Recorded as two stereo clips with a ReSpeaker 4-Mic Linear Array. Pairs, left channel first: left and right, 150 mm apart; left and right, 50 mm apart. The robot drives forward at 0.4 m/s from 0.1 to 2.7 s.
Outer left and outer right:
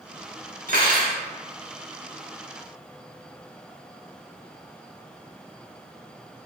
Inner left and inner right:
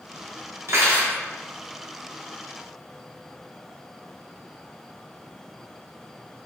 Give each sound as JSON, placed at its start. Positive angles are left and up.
{"t": 0.7, "sound": "cutlery clinking", "side_deg": -65, "distance_m": 1.0}